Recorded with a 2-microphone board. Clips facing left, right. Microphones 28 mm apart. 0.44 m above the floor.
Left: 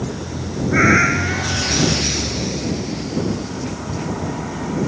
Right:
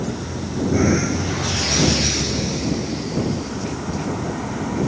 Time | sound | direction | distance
0.7 | a cat meowing | 60° left (ahead or behind) | ?